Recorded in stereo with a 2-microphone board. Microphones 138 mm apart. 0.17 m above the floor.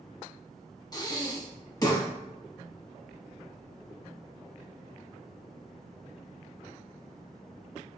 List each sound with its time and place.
0.9 s breathing: 30° left (ahead or behind), 0.5 m